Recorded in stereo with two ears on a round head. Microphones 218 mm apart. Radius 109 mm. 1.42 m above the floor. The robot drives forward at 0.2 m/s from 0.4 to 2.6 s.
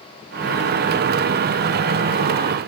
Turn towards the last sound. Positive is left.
No sound to turn to.